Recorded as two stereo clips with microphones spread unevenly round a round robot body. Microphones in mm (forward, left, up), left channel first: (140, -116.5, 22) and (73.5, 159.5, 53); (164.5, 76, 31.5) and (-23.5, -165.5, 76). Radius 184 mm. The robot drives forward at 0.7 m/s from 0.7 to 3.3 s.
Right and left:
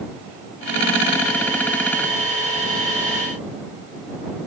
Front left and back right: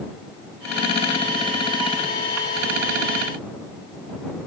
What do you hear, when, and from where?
Only background noise.